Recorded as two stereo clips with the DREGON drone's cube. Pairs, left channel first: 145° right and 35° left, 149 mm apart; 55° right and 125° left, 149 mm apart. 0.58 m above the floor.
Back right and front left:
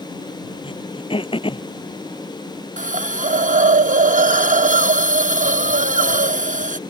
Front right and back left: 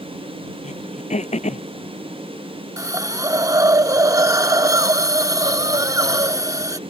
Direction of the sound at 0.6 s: 95° right.